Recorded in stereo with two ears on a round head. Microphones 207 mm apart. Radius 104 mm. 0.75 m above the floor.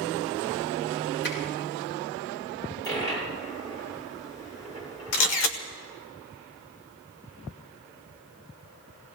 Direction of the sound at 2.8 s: 15° left (ahead or behind).